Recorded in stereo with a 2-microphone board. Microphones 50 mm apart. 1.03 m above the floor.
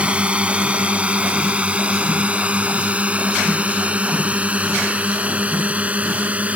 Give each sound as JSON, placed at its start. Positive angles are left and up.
{"t": 0.0, "sound": "a drone", "side_deg": -25}